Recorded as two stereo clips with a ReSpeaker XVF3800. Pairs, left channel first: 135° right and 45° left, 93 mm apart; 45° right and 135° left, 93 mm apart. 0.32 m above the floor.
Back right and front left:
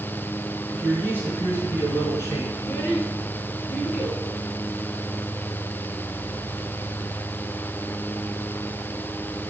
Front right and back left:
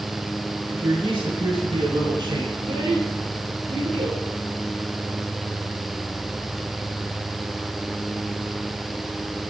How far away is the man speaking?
About 3.5 m.